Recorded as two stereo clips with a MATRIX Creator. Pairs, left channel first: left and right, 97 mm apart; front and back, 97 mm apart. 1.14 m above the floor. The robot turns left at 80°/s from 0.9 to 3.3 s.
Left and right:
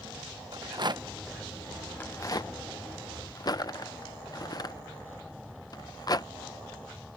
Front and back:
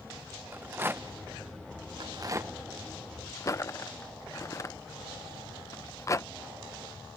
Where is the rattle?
115° right; by 6.3 s 50° left.